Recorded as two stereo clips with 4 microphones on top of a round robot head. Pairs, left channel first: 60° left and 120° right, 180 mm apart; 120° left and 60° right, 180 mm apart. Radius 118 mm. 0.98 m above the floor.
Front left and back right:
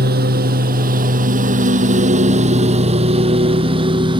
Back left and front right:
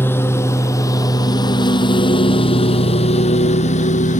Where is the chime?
No chime in this recording.